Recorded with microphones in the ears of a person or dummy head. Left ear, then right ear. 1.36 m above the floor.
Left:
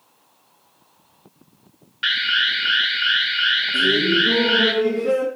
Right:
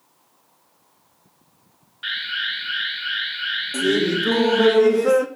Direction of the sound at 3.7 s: 55° right (ahead or behind).